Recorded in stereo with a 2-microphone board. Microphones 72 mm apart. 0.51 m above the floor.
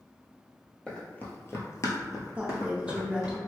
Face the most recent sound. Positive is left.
turn(degrees=-15)  # may be behind; listen again after turning